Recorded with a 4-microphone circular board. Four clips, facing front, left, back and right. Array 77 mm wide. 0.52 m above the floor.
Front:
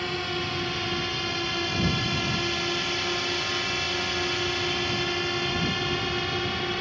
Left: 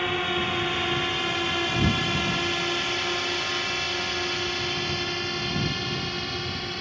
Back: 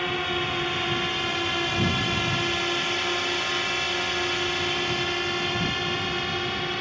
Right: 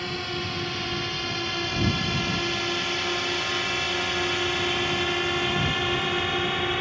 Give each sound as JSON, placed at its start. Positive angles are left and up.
{"t": 0.0, "sound": "a drone", "azimuth_deg": 125}